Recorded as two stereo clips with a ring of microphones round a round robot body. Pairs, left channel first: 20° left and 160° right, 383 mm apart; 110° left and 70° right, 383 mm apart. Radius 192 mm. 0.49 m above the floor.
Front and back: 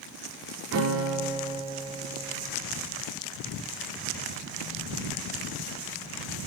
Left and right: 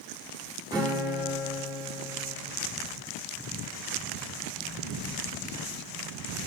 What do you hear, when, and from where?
0.7 s a guitar: 140° right, 1.4 m